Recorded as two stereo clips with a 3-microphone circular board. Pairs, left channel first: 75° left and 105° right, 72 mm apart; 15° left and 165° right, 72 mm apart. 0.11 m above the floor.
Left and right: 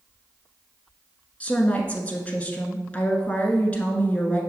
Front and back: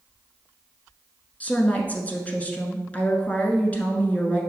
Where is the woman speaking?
40° left, 1.1 m.